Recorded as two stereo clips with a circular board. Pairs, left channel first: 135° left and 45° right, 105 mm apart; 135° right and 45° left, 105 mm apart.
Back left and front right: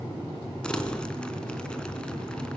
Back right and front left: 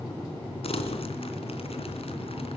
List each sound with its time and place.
0.6 s crumpling: 145° right, 3 m